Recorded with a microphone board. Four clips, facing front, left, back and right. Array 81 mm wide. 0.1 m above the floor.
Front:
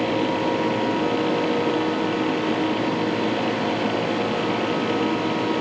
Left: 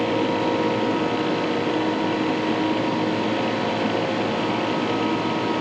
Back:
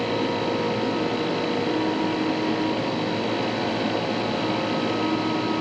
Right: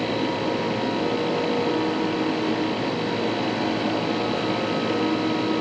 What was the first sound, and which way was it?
Only background noise.